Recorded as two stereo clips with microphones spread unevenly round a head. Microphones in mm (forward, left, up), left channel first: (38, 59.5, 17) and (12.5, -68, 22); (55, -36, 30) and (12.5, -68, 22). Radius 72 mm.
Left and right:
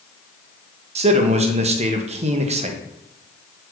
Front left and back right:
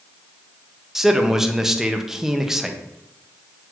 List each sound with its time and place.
0.9 s a man speaking: 60° right, 1.2 m